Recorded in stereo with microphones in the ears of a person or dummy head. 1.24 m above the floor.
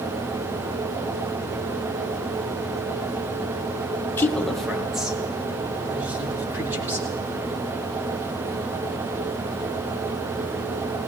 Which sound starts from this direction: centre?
A woman speaking, at 4.2 s.